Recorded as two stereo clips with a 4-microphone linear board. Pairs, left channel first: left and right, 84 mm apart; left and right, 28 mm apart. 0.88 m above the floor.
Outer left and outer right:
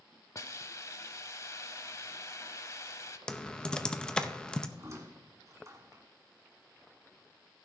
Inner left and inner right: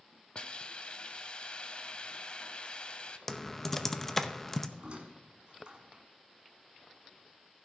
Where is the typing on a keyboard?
10° left (ahead or behind), 0.6 m.